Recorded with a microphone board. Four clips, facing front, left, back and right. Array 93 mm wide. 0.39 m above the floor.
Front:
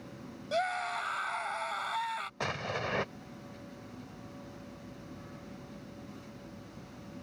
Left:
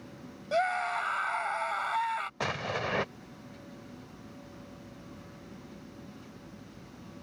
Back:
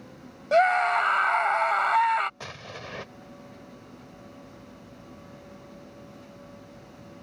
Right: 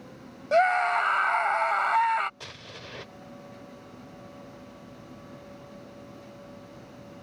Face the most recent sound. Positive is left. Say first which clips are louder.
# left 12 dB, front 5 dB
turn(degrees=65)